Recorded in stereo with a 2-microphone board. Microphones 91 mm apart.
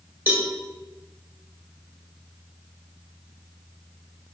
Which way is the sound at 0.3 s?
25° right (ahead or behind).